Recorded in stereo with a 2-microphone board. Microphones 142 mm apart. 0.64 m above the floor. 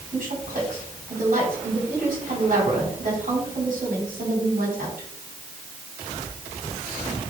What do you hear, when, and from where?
0.1 s a woman speaking: 80° right, 5 m